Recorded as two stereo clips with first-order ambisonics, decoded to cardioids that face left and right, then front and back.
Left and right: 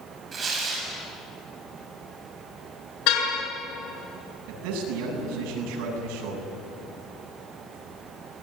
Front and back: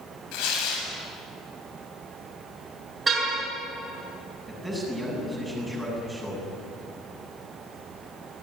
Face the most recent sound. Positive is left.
turn(degrees=-90)